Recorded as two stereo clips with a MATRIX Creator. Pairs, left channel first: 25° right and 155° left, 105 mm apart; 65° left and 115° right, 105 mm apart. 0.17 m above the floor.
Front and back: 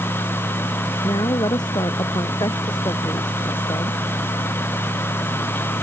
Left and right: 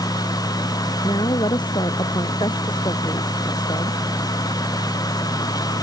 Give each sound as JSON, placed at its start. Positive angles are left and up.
{"t": 1.0, "sound": "a woman speaking", "azimuth_deg": 25}